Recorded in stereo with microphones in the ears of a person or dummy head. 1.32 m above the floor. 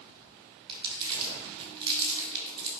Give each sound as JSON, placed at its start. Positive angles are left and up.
{"t": 0.7, "sound": "crumpling", "side_deg": -30, "distance_m": 3.0}